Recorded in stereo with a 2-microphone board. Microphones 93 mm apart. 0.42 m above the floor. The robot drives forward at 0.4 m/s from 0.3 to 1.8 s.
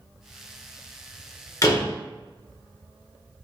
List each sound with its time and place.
1.6 s a door slam: 35° left (ahead or behind), 1.0 m